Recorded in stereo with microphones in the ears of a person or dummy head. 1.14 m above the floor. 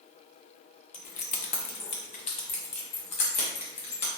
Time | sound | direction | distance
0.9 | keys jangling | 45° left (ahead or behind) | 0.5 m